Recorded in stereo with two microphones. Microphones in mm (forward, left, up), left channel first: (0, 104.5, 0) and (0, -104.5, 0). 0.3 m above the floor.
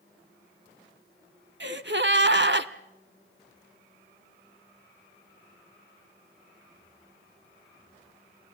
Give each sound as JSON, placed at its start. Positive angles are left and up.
{"t": 1.6, "sound": "a gasp", "side_deg": -60, "distance_m": 0.7}